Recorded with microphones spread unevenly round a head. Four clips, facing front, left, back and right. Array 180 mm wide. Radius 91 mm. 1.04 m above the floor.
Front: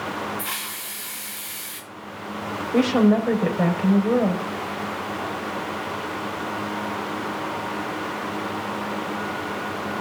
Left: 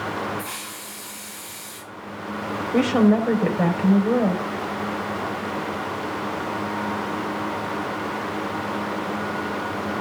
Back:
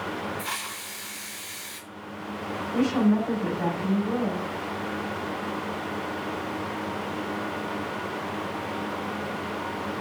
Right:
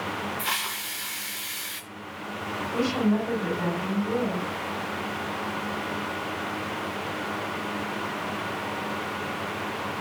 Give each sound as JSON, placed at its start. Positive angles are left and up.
{"t": 0.4, "sound": "a hiss", "azimuth_deg": -85, "distance_m": 4.0}
{"t": 2.7, "sound": "a woman speaking", "azimuth_deg": 45, "distance_m": 4.5}